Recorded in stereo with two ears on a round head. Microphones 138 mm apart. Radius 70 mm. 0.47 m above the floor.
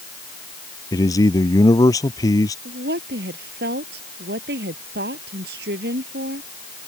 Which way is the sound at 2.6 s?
75° right (ahead or behind).